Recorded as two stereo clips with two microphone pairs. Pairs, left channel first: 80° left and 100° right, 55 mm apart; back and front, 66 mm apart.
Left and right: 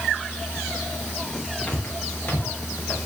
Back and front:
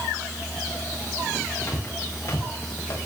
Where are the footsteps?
140° left, 7.5 m.